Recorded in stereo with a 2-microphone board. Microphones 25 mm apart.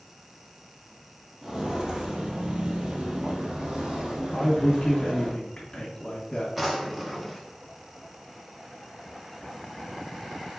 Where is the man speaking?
25° left (ahead or behind), 1.0 m.